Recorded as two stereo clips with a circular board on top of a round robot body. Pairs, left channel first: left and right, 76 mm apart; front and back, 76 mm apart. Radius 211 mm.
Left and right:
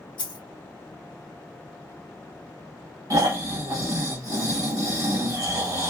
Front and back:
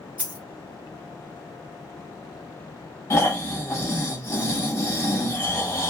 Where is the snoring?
45° right, 1.5 m.